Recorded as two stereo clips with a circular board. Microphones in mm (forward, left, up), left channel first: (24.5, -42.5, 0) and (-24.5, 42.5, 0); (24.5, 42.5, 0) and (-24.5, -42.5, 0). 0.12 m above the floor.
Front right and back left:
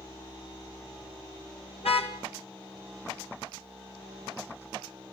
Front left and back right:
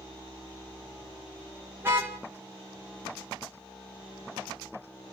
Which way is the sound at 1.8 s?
55° right.